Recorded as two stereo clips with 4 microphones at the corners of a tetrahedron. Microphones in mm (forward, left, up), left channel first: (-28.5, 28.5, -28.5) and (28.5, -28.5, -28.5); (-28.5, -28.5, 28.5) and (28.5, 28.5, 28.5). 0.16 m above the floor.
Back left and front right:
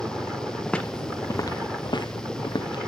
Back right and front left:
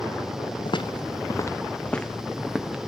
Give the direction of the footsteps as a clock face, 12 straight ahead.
5 o'clock.